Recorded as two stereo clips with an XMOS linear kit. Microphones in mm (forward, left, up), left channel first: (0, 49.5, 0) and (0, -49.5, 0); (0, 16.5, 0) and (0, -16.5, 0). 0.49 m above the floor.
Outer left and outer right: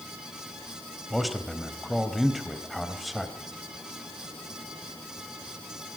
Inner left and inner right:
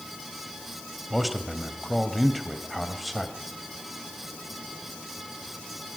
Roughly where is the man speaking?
Centre.